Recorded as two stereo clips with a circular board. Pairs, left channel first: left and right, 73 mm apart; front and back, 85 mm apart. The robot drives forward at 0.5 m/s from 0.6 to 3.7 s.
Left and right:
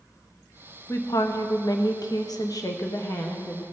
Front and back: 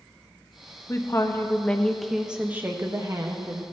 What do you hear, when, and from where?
0.9 s a woman speaking: 50° left, 0.9 m; by 3.6 s 140° left, 1.1 m